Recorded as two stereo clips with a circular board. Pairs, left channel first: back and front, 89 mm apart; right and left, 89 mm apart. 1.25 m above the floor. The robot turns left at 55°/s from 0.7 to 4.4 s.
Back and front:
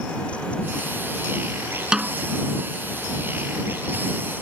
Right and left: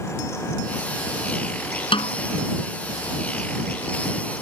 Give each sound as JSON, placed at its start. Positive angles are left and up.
{"t": 1.9, "sound": "a snare drum", "azimuth_deg": -80}